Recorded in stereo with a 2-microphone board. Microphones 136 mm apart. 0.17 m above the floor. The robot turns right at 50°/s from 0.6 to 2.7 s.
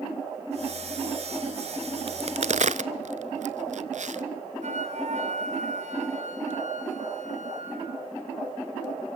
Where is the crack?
45° right (ahead or behind), 1.0 m; by 4.2 s 65° right (ahead or behind), 1.0 m.